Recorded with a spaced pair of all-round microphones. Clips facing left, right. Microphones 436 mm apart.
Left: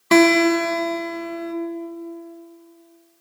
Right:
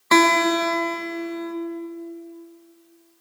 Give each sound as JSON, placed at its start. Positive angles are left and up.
{"t": 0.1, "sound": "a guitar", "side_deg": 45, "distance_m": 1.7}